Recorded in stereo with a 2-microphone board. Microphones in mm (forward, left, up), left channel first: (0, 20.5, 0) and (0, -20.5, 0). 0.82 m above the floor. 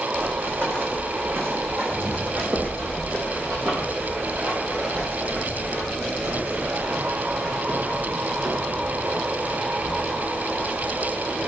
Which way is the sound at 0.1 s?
55° right (ahead or behind).